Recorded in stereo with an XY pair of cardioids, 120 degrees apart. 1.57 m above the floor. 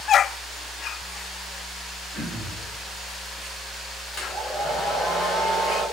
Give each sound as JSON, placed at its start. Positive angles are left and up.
{"t": 2.1, "sound": "throat clearing", "azimuth_deg": 50, "distance_m": 1.7}
{"t": 4.1, "sound": "a hair dryer", "azimuth_deg": 25, "distance_m": 1.7}